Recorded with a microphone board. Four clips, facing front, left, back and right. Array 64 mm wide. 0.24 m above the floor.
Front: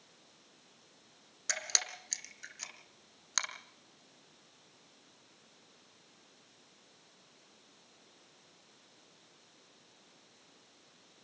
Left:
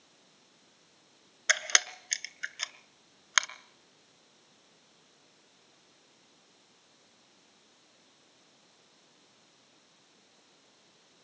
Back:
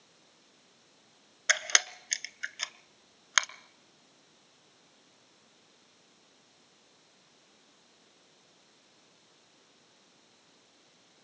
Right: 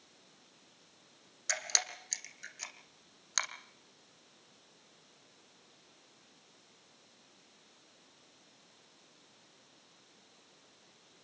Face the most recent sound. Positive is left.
turn(degrees=135)